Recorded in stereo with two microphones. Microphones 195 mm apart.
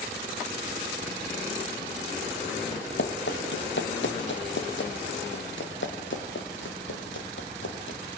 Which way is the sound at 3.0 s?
65° left (ahead or behind).